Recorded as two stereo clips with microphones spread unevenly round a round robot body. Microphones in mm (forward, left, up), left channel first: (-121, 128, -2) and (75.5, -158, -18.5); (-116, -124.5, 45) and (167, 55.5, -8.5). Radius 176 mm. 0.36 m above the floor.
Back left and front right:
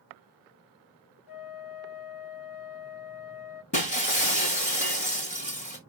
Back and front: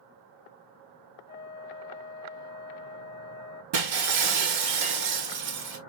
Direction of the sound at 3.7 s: 55° left.